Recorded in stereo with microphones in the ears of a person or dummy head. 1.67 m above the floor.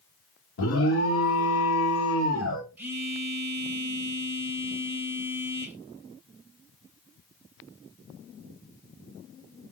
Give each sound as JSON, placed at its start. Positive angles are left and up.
{"t": 0.6, "sound": "an alarm", "side_deg": 70, "distance_m": 1.2}
{"t": 2.8, "sound": "a phone buzzing", "side_deg": -5, "distance_m": 1.0}